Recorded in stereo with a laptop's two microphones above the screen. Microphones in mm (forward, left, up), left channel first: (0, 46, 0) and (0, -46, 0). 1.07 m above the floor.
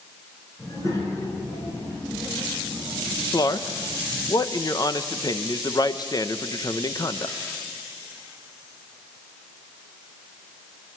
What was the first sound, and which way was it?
A child speaking, 35° left (ahead or behind).